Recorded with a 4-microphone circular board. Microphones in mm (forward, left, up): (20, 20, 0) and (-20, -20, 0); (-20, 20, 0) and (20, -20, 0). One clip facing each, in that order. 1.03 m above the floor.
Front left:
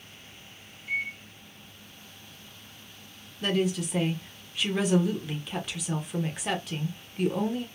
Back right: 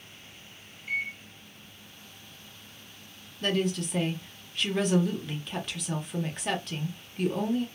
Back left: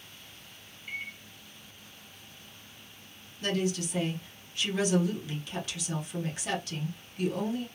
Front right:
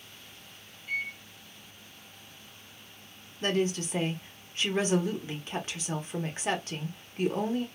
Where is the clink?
No clink in this recording.